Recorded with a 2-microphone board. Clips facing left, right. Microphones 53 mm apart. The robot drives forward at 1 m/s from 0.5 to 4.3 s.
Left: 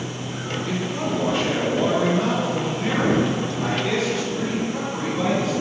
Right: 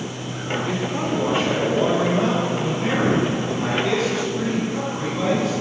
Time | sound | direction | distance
0.7 | a man speaking | 20° right (ahead or behind) | 1.0 m